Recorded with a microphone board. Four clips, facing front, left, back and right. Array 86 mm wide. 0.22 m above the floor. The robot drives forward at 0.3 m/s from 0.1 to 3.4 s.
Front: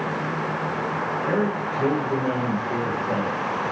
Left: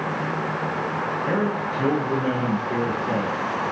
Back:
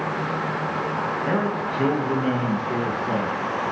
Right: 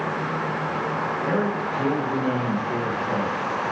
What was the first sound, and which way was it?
A man speaking, 170° left.